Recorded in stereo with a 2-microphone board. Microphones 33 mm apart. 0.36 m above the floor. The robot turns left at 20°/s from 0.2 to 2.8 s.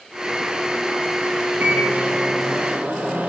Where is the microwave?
70° right (ahead or behind), 3 m; by 3.3 s 75° right (ahead or behind), 3 m.